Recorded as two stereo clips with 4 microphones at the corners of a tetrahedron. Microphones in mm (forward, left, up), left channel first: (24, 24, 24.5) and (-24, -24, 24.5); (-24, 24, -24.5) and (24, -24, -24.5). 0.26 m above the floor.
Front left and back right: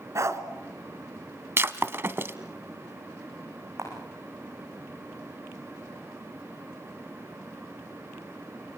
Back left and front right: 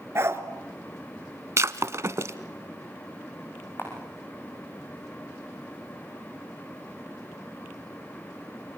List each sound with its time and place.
0.1 s a dog barking: 95° right, 1.3 m
1.6 s breaking glass: 85° right, 0.8 m
3.8 s a camera shutter: 175° right, 7 m